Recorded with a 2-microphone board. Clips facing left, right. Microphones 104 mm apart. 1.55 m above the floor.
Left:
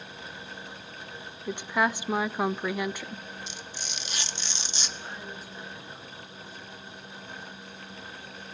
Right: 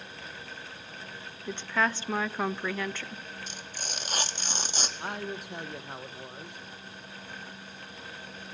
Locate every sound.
1.5 s a woman speaking: 15° left (ahead or behind), 0.5 m
3.5 s tearing paper: 45° right (ahead or behind), 1.3 m
5.0 s a man speaking: 65° right (ahead or behind), 1.5 m